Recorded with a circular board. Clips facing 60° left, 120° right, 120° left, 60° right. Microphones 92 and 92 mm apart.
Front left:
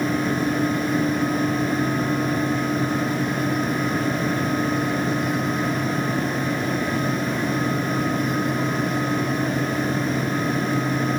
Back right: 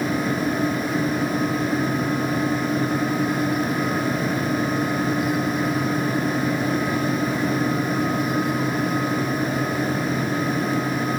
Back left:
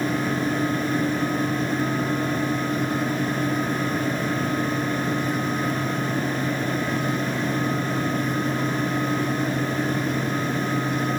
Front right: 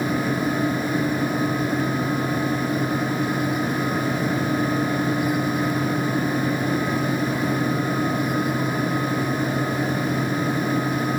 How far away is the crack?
No crack in this recording.